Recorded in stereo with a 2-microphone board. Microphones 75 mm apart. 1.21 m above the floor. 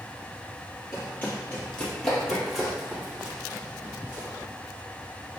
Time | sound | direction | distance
0.9 | running footsteps | 30° left (ahead or behind) | 1.5 m